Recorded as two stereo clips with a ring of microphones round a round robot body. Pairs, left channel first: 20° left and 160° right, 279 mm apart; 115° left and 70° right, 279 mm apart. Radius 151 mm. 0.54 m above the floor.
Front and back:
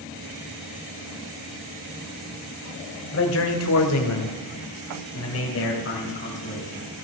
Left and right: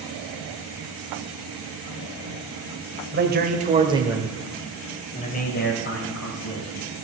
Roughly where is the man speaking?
Ahead.